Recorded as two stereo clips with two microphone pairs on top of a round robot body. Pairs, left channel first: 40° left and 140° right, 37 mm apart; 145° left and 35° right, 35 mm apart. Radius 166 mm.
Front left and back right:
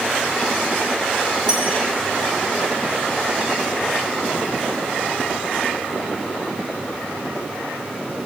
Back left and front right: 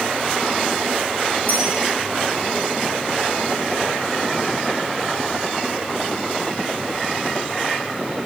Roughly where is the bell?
Right.